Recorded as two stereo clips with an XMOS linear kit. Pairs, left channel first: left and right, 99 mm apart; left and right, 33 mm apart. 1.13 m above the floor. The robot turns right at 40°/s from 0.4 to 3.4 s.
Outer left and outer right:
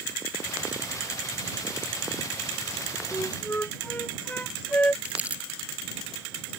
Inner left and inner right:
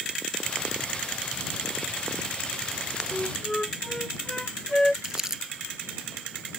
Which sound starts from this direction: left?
A flute, at 3.1 s.